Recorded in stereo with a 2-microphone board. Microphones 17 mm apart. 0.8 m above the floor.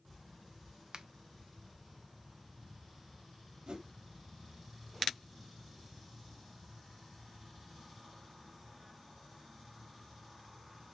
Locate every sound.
0.9 s a finger snap: 50° right (ahead or behind), 0.5 m
3.7 s a whoosh: 55° right (ahead or behind), 1.0 m